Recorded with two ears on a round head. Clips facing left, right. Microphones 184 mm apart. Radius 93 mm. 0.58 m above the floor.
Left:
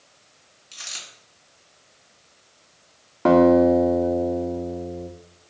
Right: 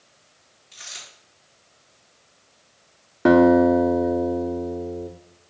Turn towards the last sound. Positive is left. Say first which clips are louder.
# even
turn(degrees=-15)  # may be behind; listen again after turning